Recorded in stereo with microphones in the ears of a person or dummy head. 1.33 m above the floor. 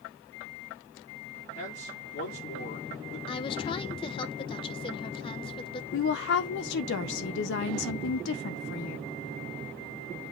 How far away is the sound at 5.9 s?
About 0.6 m.